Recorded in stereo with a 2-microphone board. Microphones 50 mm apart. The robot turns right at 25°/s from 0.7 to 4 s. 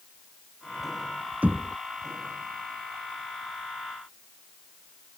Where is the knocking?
35° right (ahead or behind); by 1.8 s 40° right (ahead or behind).